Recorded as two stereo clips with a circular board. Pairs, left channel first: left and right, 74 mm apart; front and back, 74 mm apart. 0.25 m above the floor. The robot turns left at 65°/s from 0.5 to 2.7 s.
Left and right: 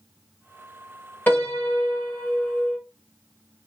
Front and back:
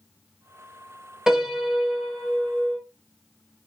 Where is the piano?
110° left, 0.8 m; by 2.8 s 20° left, 0.8 m.